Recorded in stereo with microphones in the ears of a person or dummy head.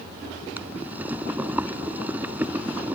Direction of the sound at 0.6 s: 10° right (ahead or behind).